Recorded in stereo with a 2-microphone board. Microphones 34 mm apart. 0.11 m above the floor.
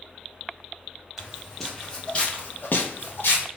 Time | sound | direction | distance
1.2 | footsteps | 5° right (ahead or behind) | 1.2 m